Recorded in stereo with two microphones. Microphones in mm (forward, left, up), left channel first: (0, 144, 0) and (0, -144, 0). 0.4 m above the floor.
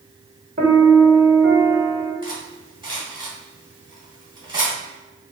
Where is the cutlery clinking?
15° right (ahead or behind), 1.9 m.